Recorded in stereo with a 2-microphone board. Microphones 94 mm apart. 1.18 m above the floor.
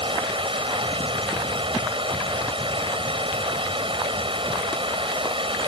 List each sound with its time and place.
0.0 s running water: 70° right (ahead or behind)